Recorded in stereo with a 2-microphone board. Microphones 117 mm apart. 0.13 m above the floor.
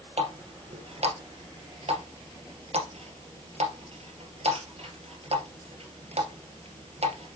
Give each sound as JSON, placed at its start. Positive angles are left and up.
{"t": 0.2, "sound": "a running tap", "side_deg": -60, "distance_m": 2.0}